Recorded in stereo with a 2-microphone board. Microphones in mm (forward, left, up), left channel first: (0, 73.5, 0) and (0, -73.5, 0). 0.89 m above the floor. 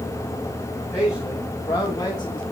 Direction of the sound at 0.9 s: 20° left (ahead or behind).